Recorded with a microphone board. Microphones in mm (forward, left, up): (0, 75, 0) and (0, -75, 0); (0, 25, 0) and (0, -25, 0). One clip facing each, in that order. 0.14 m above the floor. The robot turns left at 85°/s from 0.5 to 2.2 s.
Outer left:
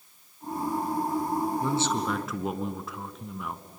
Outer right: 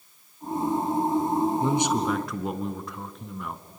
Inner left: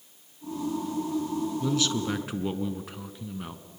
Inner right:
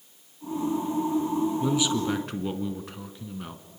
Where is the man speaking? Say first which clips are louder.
Outer right 3 dB, inner right 2 dB; 135° right, 1.3 m; by 3.6 s 175° left, 1.3 m.